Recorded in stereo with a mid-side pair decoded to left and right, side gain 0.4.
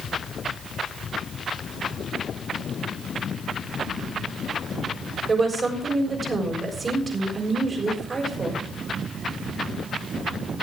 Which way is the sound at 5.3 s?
35° right.